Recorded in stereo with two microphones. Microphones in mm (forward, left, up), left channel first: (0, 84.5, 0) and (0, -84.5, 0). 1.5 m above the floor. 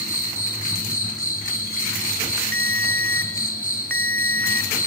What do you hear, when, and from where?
0.0 s an insect: 55° left (ahead or behind), 5 m
2.5 s a ringtone: 10° left (ahead or behind), 1.0 m